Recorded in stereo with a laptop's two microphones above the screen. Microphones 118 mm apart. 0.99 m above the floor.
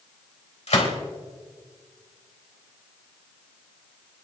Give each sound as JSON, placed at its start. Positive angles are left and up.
{"t": 0.7, "sound": "a gunshot", "side_deg": 75, "distance_m": 3.5}